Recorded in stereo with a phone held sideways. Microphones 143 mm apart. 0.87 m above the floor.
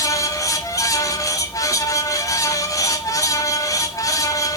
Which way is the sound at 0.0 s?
25° left (ahead or behind).